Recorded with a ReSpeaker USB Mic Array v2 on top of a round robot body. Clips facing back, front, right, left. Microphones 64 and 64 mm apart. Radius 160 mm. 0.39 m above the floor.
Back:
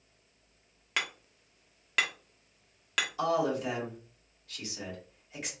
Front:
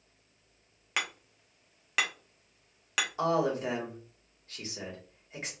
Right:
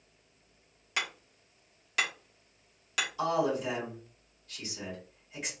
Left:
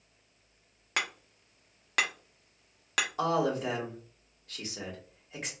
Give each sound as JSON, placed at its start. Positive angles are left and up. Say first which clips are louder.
{"t": 1.0, "sound": "hammering", "louder": "even, left 2 dB", "azimuth_deg": 85, "distance_m": 1.3}
{"t": 3.2, "sound": "a man speaking", "louder": "front 1 dB, even", "azimuth_deg": 55, "distance_m": 2.0}